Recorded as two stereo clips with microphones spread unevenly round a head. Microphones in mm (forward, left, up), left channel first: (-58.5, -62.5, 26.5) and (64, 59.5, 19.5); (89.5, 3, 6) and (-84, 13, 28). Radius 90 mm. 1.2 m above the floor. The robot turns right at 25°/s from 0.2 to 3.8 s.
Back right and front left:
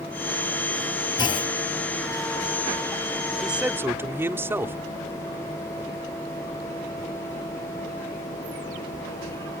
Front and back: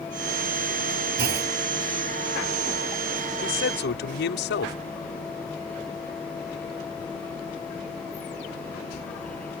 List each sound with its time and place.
1.2 s a clunk: 160° left; by 1.6 s 170° left
3.4 s a man speaking: 45° right; by 4.8 s 35° right